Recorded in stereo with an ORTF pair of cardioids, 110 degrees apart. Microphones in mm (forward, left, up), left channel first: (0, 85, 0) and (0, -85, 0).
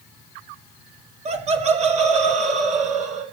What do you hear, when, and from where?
1.2 s laughter: 40° right, 2 m; by 3.2 s 45° right, 4 m